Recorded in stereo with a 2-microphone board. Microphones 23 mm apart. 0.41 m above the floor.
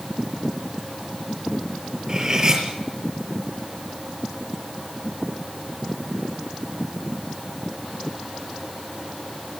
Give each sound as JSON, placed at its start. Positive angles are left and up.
{"t": 2.1, "sound": "cutlery clinking", "side_deg": -35, "distance_m": 6.5}